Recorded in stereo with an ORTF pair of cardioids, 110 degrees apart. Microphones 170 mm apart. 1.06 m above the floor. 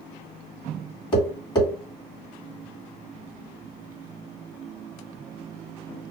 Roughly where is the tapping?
Ahead.